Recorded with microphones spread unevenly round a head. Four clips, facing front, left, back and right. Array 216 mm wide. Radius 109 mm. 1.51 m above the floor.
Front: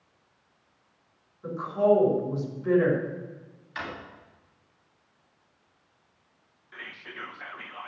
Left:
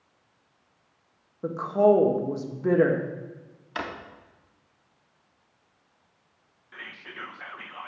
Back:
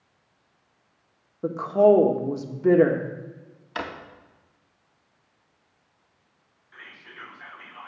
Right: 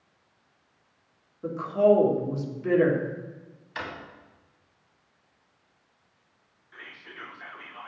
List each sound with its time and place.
1.4 s a woman speaking: 160° left, 1.8 m
3.8 s a drawer: 140° left, 2 m
6.7 s whispering: 50° left, 1.6 m